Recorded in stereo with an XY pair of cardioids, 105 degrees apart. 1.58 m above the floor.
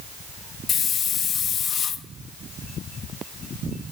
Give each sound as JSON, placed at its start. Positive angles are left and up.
{"t": 0.7, "sound": "a hiss", "azimuth_deg": 60, "distance_m": 0.8}